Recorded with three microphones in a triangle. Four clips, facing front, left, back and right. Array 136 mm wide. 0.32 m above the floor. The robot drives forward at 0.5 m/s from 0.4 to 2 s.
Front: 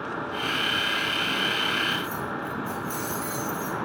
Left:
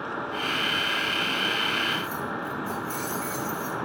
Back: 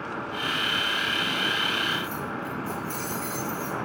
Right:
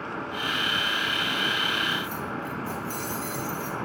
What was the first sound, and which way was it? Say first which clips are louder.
Keys jangling: left 1 dB, front 1 dB; 25° right.